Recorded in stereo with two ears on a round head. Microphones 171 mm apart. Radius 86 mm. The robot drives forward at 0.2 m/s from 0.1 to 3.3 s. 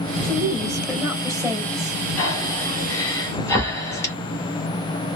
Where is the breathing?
15° left (ahead or behind), 1.2 m.